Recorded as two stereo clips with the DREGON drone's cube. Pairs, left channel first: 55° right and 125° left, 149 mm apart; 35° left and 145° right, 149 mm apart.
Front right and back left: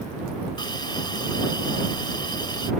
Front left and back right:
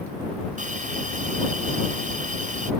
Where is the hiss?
115° right.